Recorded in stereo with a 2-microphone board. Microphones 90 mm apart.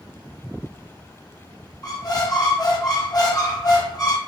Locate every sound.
1.8 s a squeak: 40° left (ahead or behind), 0.9 m